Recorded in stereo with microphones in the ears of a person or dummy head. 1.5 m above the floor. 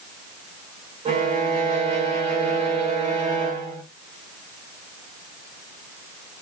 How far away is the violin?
About 1.3 m.